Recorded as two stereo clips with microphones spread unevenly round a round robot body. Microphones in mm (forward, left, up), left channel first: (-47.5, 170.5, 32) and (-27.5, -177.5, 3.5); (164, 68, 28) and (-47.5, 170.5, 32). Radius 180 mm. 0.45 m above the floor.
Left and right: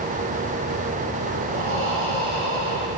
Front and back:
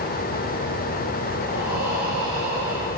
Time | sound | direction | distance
1.5 | breathing | 70° right | 5.5 m